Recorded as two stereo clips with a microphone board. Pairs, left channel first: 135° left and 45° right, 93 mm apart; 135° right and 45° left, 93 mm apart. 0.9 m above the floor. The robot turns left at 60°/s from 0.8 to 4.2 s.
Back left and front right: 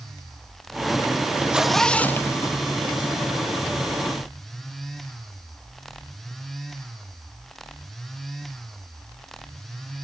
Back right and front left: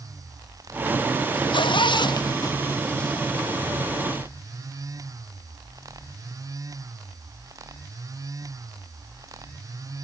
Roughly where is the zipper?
Behind right.